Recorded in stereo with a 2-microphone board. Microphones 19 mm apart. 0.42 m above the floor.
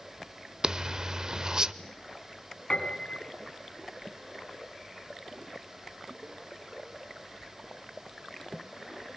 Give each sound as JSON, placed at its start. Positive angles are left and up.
{"t": 0.6, "sound": "a zipper", "side_deg": -35, "distance_m": 0.8}
{"t": 2.7, "sound": "a piano", "side_deg": 55, "distance_m": 4.0}